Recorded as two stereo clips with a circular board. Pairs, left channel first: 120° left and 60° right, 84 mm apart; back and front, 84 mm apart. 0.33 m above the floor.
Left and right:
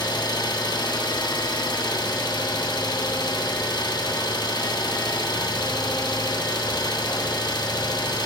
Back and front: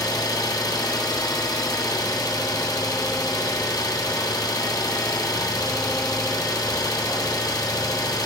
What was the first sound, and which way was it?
An engine running, 140° left.